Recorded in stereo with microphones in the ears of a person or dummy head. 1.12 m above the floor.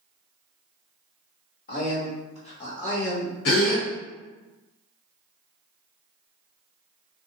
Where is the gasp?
80° left, 1.1 m.